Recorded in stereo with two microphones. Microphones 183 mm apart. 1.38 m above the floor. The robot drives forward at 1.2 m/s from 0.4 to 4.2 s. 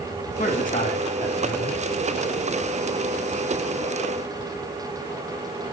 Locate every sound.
0.4 s a man speaking: 50° left (ahead or behind), 2.5 m; by 1.8 s 30° left (ahead or behind), 4 m